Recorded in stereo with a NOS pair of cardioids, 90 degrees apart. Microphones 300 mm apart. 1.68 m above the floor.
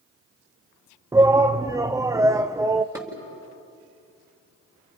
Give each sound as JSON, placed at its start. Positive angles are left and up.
{"t": 1.1, "sound": "a shout", "azimuth_deg": -10, "distance_m": 0.7}
{"t": 3.0, "sound": "dishes clattering", "azimuth_deg": -10, "distance_m": 7.5}